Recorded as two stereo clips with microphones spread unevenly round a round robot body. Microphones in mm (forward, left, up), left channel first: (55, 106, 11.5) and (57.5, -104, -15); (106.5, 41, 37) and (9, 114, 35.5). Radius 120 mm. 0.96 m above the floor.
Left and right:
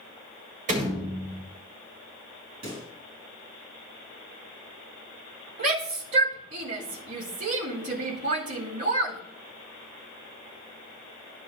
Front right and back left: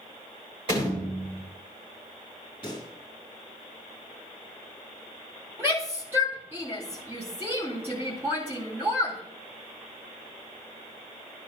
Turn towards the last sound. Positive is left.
turn(degrees=-145)